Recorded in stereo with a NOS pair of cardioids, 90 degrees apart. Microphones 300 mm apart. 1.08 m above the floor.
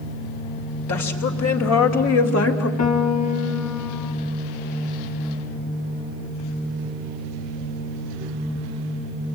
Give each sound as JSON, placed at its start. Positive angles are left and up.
{"t": 0.9, "sound": "a woman speaking", "azimuth_deg": 70, "distance_m": 3.5}
{"t": 2.8, "sound": "a piano", "azimuth_deg": 65, "distance_m": 2.5}